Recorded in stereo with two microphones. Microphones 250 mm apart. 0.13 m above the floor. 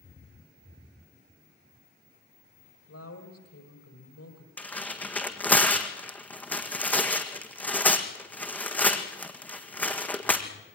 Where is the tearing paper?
5° left (ahead or behind), 1.7 m.